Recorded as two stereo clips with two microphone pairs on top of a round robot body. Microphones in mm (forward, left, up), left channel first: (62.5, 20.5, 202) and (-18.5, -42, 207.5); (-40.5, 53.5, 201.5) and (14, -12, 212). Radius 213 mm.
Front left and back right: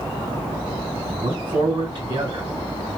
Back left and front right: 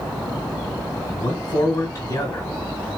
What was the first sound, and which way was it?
A man speaking, 175° left.